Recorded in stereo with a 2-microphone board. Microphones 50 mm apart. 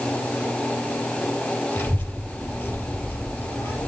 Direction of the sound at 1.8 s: 55° left (ahead or behind).